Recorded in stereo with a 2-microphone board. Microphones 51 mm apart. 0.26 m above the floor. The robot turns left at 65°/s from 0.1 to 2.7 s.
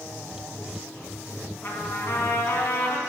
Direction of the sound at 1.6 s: 135° left.